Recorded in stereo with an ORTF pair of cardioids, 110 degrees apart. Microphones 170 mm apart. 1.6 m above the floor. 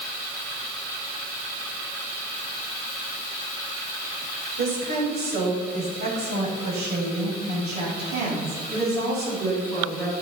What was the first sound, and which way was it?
A woman speaking, 70° right.